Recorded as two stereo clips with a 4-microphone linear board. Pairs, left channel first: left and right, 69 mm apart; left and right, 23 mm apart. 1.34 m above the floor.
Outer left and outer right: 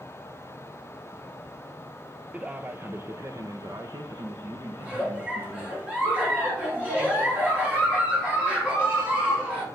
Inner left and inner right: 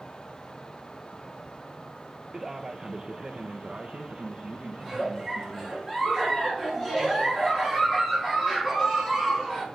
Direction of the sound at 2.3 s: 15° right (ahead or behind).